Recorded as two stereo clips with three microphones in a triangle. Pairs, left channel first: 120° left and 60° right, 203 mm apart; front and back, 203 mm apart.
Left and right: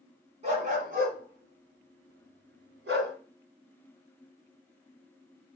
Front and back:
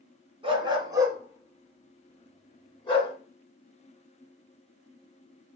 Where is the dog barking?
115° right, 1.6 m; by 3.1 s 60° right, 1.5 m.